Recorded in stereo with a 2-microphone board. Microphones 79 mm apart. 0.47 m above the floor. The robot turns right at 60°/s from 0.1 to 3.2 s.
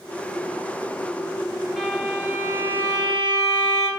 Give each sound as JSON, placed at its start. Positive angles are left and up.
{"t": 1.8, "sound": "a violin", "azimuth_deg": 180, "distance_m": 1.5}